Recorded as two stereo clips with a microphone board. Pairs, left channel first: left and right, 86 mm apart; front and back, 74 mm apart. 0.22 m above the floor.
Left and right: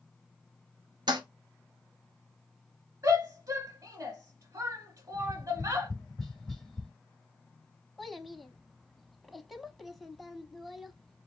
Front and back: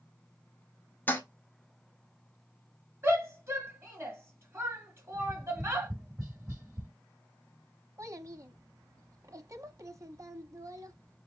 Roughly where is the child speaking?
Behind.